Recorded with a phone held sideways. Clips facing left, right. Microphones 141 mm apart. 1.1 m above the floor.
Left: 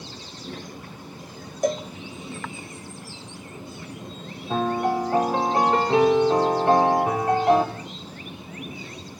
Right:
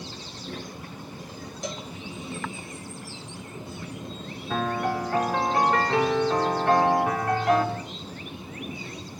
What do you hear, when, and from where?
1.6 s a cowbell: 50° left (ahead or behind), 0.6 m
4.5 s a piano: 25° left (ahead or behind), 3 m